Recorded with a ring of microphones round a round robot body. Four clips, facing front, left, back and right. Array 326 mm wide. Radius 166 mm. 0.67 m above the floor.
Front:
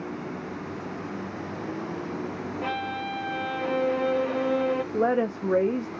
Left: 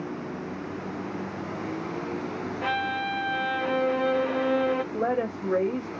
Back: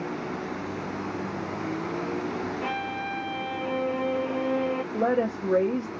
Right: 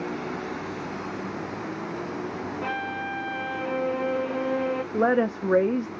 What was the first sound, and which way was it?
A violin, 65° left.